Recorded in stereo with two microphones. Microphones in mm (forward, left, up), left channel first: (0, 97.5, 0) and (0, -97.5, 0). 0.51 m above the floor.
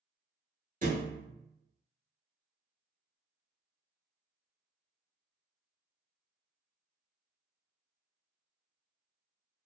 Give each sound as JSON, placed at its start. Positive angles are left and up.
{"t": 0.8, "sound": "a thud", "side_deg": -45, "distance_m": 0.7}